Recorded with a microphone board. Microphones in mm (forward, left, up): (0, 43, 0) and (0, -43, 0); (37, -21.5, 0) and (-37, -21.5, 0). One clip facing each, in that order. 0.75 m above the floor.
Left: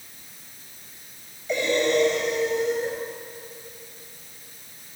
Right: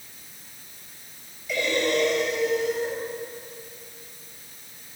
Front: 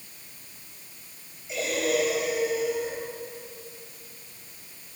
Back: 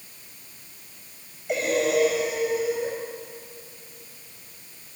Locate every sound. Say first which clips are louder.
1.5 s breathing: left 2 dB, back 4 dB; 150° left, 7 m